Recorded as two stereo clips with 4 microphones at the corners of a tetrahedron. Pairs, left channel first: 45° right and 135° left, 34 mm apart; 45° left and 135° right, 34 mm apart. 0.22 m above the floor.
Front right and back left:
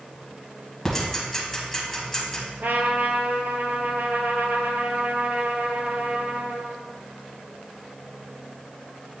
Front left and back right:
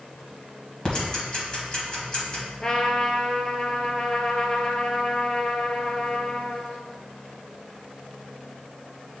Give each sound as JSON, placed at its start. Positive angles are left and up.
{"t": 0.8, "sound": "ticking", "azimuth_deg": 25, "distance_m": 1.7}
{"t": 2.6, "sound": "a trumpet", "azimuth_deg": 110, "distance_m": 0.8}